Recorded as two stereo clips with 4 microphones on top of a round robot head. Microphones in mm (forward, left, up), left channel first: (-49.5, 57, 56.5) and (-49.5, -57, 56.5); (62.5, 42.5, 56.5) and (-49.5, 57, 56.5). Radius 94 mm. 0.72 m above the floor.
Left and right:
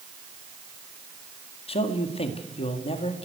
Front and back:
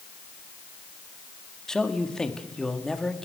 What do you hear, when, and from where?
1.7 s a man speaking: 75° left, 1.9 m